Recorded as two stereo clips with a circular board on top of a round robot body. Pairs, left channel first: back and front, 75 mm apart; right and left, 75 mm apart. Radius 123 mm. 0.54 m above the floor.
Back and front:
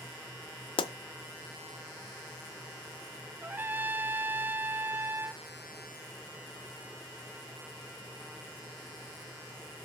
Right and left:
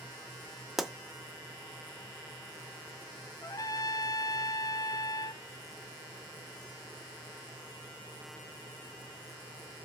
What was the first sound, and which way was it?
A pop, 175° left.